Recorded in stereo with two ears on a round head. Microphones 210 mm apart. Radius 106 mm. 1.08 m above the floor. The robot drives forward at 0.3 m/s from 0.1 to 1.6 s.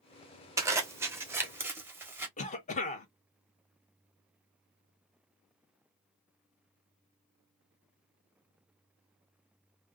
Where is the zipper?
10° right (ahead or behind), 0.7 m.